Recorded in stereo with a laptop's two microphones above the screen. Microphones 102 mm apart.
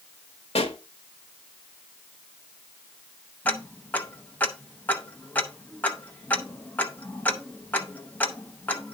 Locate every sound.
0.6 s a pop: 80° left, 1.2 m
3.5 s ticking: 15° left (ahead or behind), 0.7 m